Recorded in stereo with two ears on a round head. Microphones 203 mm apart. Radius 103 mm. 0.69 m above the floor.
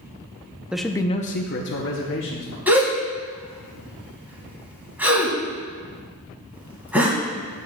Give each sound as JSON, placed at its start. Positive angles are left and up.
{"t": 0.7, "sound": "a man speaking", "side_deg": -5, "distance_m": 0.6}
{"t": 2.7, "sound": "a gasp", "side_deg": -5, "distance_m": 2.5}